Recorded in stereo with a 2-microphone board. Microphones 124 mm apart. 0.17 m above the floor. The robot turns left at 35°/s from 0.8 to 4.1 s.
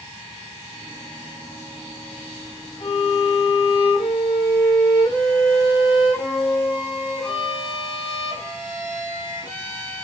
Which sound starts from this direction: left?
A violin, at 2.8 s.